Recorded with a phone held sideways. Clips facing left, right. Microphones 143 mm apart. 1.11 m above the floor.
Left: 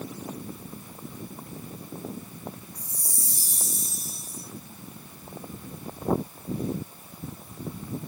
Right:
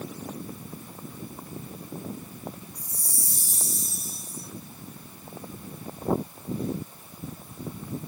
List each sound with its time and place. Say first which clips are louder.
2.8 s a chime: right 1 dB; 20° left (ahead or behind), 5.5 m